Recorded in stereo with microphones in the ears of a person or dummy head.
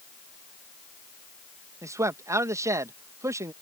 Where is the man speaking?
15° right (ahead or behind).